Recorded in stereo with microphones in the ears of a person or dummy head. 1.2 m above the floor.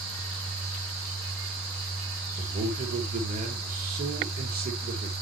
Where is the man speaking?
40° right (ahead or behind), 3 m.